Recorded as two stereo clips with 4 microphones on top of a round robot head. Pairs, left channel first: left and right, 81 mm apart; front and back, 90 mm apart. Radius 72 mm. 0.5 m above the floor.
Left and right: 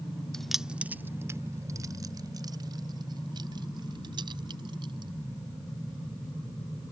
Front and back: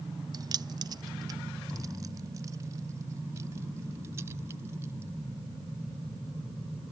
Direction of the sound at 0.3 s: 170° left.